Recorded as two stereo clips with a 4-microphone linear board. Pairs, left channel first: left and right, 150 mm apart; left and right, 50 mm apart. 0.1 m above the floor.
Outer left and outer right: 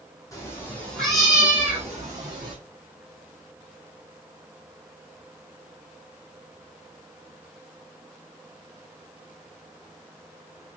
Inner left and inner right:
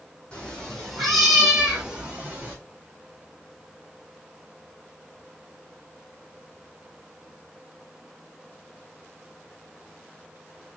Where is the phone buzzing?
No phone buzzing in this recording.